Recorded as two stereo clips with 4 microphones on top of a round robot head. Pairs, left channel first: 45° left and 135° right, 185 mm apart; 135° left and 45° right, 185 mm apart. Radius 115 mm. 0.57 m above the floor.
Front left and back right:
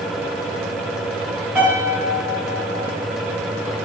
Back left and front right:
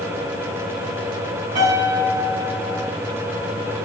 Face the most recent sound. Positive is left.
turn(degrees=-55)